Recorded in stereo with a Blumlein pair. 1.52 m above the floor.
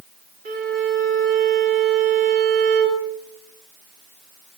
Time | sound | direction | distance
0.5 | a violin | 45° right | 3 m